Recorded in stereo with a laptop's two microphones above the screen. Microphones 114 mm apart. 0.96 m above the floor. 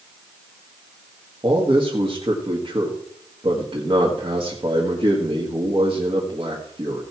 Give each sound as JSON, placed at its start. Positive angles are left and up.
{"t": 1.4, "sound": "a man speaking", "side_deg": -45, "distance_m": 1.5}